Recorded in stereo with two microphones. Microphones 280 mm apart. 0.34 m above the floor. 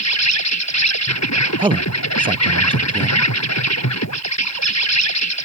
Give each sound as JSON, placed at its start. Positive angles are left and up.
{"t": 0.0, "sound": "an insect", "side_deg": 80}
{"t": 1.6, "sound": "a man speaking", "side_deg": -20}